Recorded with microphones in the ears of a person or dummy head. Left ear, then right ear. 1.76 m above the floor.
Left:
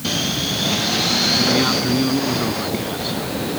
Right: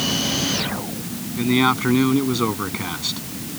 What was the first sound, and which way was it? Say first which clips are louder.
A man speaking: left 2 dB; 35° right (ahead or behind).